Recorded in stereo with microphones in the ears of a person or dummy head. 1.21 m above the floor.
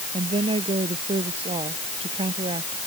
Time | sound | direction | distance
0.1 | a woman speaking | 25° right (ahead or behind) | ?